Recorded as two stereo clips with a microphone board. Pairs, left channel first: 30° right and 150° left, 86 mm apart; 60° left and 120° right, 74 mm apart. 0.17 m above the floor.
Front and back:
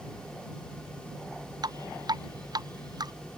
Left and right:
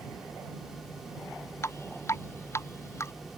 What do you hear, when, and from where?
1.6 s dripping: 110° left